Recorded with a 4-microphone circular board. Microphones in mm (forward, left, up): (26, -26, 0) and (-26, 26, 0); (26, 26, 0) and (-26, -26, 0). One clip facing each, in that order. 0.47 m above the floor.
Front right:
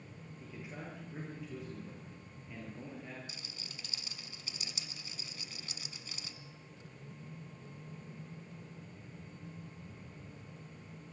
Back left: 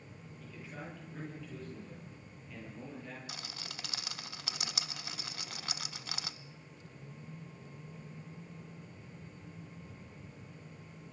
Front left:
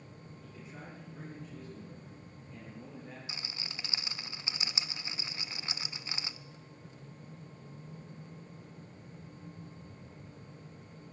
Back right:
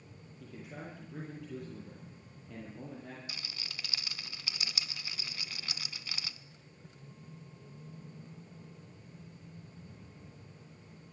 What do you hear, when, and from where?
0.4 s a man speaking: 115° right, 9.5 m; by 3.2 s 130° right, 10 m
3.3 s a rattle: 110° left, 0.7 m